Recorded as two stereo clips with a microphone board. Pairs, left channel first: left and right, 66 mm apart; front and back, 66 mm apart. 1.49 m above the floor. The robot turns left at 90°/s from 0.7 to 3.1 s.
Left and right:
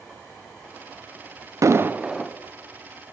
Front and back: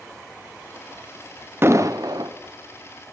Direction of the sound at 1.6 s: 125° right.